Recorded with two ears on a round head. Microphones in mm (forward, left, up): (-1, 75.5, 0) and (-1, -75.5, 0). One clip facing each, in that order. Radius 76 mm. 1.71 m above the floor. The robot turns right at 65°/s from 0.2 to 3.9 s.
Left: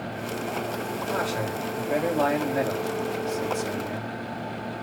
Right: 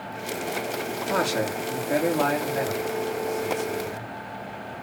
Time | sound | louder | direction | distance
1.1 | a man speaking | right 4 dB | 65° right | 4.5 m